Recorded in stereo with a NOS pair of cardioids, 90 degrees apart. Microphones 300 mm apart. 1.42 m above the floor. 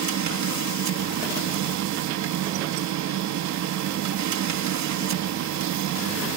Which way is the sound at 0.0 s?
65° right.